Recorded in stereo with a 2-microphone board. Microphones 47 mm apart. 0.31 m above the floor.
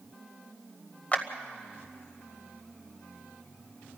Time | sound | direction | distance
1.1 | a clap | 35° left (ahead or behind) | 1.2 m